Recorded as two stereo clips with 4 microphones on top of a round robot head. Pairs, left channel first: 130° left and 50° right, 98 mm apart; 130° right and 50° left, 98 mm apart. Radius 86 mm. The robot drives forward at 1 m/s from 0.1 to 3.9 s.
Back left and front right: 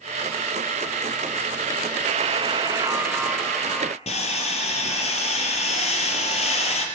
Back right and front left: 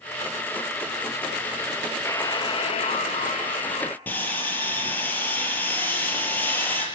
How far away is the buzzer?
About 1.0 m.